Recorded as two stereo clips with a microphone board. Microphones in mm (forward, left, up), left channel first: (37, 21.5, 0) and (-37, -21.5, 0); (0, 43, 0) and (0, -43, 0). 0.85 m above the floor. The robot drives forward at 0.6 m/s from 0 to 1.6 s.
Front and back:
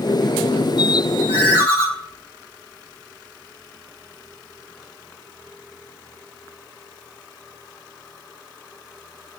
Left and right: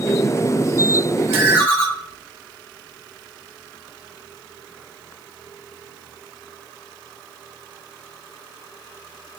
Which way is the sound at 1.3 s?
155° right.